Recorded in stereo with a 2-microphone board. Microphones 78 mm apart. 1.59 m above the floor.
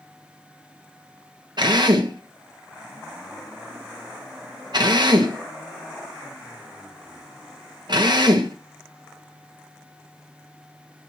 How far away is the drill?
About 2 m.